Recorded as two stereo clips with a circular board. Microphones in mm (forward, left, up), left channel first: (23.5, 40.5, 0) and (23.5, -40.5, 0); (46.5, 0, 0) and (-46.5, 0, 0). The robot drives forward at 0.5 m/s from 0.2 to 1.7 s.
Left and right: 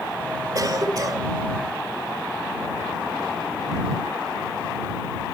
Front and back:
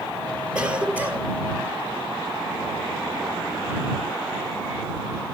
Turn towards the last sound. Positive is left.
turn(degrees=-125)